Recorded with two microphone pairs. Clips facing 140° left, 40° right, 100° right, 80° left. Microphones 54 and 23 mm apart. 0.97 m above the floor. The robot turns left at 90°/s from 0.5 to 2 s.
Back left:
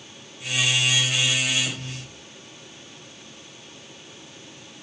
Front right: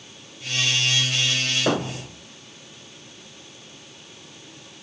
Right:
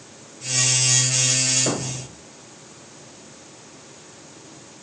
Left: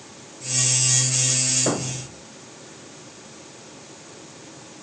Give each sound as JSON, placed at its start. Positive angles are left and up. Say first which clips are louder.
{"t": 1.7, "sound": "a thud", "louder": "front right 11 dB, left 1 dB", "azimuth_deg": -5}